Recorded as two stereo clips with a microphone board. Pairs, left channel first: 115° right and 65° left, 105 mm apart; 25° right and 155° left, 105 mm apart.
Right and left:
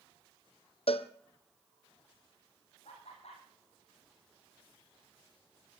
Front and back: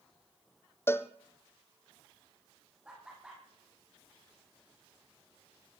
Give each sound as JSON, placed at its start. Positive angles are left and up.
{"t": 0.9, "sound": "a cowbell", "azimuth_deg": -90, "distance_m": 1.0}
{"t": 2.9, "sound": "laughter", "azimuth_deg": -120, "distance_m": 7.5}